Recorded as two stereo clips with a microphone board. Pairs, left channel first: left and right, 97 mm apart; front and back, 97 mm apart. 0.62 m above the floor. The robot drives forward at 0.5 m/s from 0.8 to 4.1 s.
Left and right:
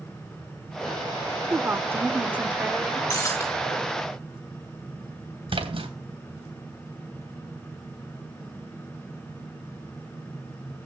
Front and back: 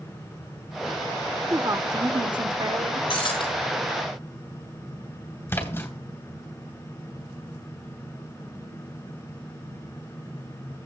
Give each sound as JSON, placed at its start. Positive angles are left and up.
{"t": 1.5, "sound": "a woman speaking", "azimuth_deg": -140, "distance_m": 0.7}
{"t": 3.1, "sound": "breaking glass", "azimuth_deg": 25, "distance_m": 3.0}
{"t": 5.5, "sound": "a splash", "azimuth_deg": -65, "distance_m": 2.5}